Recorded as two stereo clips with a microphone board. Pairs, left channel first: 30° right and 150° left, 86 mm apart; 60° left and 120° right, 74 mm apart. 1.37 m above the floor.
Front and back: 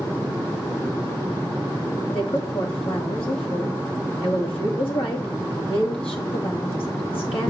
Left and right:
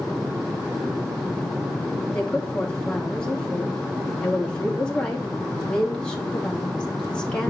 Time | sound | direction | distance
2.1 | a woman speaking | 20° right | 2 m